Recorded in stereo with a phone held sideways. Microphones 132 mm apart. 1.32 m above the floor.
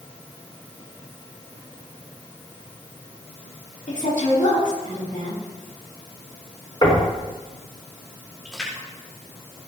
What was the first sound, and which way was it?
A woman speaking, 85° left.